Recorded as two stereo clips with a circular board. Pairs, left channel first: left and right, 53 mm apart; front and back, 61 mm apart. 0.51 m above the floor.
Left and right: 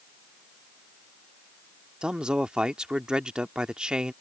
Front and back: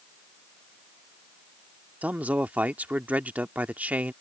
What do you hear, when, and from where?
2.0 s a man speaking: 150° right